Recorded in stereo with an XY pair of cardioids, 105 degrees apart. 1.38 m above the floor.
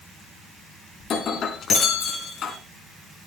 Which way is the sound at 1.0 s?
55° left.